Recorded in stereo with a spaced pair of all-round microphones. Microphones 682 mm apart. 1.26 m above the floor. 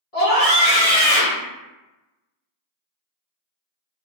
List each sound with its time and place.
0.1 s a scream: 55° left (ahead or behind), 1.3 m